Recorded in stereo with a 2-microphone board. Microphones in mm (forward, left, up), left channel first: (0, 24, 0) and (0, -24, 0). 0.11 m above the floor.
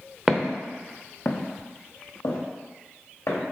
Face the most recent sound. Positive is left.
turn(degrees=85)